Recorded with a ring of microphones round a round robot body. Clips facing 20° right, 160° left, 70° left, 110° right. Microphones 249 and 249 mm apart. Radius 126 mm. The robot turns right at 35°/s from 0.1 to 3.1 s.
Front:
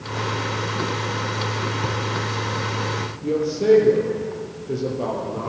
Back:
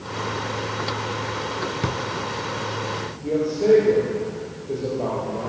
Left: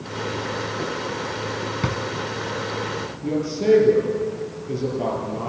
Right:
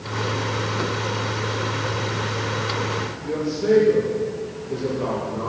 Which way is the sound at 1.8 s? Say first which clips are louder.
Even, left 1 dB; 90° left.